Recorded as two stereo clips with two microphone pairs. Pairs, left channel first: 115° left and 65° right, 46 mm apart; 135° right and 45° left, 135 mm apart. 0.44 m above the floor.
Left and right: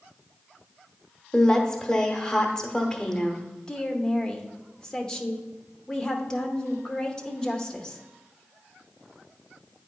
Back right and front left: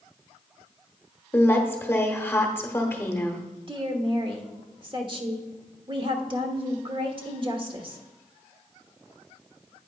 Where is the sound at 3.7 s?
55° left, 1.0 m.